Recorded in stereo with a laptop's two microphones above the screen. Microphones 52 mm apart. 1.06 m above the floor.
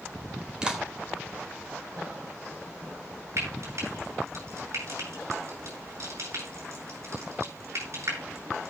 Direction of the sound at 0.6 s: 15° right (ahead or behind).